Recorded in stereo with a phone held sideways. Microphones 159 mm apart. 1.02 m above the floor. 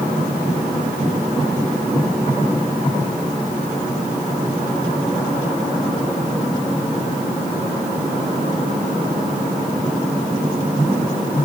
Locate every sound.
Only background noise.